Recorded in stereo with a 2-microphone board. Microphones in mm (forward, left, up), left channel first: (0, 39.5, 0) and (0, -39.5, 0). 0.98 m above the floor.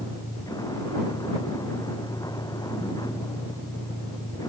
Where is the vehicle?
55° left (ahead or behind); by 4.5 s 60° left (ahead or behind).